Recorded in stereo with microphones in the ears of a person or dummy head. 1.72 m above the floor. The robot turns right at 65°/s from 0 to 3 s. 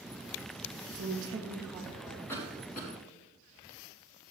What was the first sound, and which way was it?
A woman speaking, 55° right.